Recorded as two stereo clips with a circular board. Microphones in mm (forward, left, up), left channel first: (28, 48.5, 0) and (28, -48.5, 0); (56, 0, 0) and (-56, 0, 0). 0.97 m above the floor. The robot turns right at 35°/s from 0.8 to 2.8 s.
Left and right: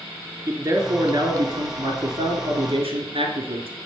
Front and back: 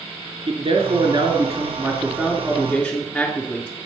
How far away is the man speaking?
About 3 m.